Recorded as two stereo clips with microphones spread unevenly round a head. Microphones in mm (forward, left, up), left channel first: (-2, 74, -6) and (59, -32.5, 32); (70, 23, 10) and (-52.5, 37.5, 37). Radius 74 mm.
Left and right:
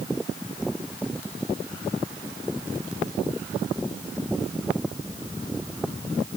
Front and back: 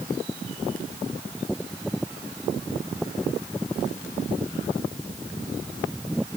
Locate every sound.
Only background noise.